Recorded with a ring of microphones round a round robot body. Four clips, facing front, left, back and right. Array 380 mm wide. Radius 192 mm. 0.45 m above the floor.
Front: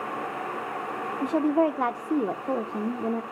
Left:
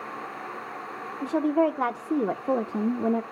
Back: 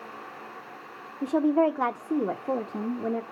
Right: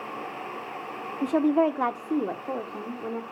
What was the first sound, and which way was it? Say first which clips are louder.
A woman speaking: right 1 dB, back 1 dB; 90° right.